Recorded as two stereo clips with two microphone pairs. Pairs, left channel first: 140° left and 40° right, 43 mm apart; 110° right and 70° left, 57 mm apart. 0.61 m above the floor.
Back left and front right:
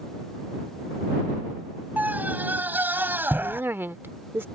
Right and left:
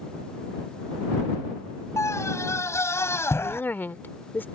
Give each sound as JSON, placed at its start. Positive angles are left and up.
{"t": 2.0, "sound": "a scream", "azimuth_deg": -85}
{"t": 3.4, "sound": "a woman speaking", "azimuth_deg": -60}